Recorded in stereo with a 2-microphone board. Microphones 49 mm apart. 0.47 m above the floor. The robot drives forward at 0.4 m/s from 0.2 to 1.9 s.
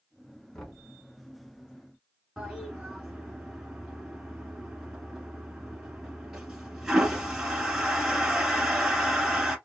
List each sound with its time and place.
0.5 s knocking: 15° left (ahead or behind), 2.0 m
2.4 s a toilet flushing: 10° right (ahead or behind), 1.3 m